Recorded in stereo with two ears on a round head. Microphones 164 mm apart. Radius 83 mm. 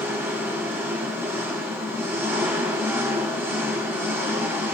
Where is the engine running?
15° right (ahead or behind), 7 m.